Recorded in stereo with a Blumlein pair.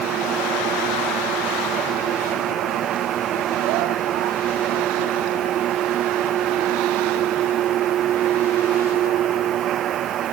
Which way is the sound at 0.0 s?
30° right.